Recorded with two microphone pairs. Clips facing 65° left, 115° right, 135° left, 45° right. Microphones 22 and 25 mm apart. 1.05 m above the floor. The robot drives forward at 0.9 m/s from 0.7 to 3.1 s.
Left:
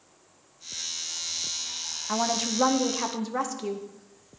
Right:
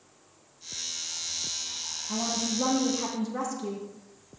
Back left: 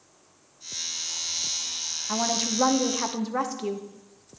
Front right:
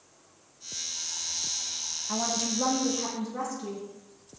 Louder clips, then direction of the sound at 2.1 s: Left 4 dB, back left 3 dB; 65° left.